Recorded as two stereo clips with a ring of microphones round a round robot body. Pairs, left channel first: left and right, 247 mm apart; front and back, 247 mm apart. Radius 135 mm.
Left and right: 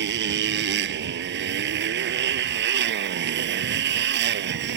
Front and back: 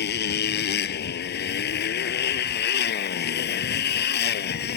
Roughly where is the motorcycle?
Ahead right.